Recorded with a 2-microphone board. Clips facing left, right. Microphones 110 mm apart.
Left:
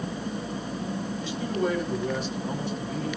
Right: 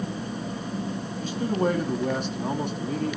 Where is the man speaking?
45° right (ahead or behind), 2 m; by 3.2 s 60° right (ahead or behind), 3 m.